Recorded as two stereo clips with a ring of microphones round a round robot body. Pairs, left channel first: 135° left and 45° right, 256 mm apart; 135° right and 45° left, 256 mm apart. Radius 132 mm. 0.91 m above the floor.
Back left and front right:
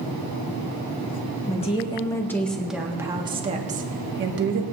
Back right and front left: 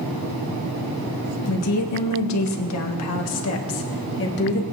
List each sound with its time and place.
1.5 s a woman speaking: 160° right, 1.8 m; by 4.6 s 85° right, 1.8 m